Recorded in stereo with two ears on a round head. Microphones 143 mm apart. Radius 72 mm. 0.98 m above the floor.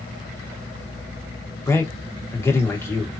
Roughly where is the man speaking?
Centre.